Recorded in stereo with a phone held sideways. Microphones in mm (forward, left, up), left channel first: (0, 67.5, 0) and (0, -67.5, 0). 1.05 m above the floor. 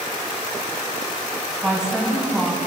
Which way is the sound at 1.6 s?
5° right (ahead or behind).